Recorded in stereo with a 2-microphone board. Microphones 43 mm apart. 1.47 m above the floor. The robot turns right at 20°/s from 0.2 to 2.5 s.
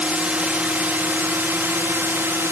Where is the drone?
145° right; by 2.5 s 100° right.